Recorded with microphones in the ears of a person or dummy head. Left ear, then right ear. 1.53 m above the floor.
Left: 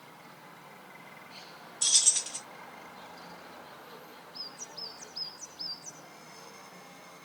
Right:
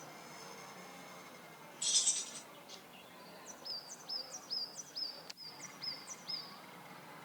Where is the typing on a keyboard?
No typing on a keyboard in this recording.